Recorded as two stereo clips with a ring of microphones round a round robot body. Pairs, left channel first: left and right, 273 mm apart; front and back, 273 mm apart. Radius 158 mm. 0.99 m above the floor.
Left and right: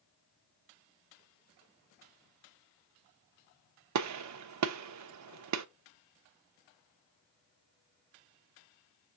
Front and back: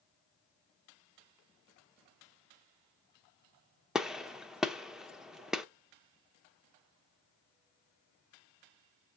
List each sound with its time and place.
4.0 s a gunshot: 90° right, 0.7 m